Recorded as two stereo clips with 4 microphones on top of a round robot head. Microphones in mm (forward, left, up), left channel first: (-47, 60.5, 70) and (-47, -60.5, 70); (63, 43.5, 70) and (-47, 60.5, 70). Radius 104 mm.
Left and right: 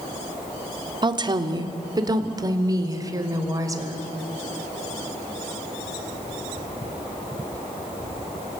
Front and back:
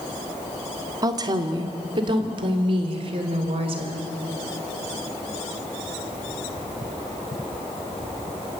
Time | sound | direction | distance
1.0 | a woman speaking | 135° right | 1.7 m